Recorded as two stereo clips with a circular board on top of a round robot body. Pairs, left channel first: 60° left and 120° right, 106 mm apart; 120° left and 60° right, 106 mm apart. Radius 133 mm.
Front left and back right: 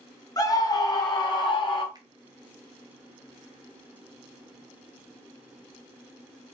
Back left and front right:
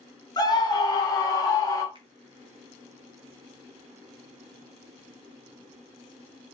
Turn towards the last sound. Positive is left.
turn(degrees=-80)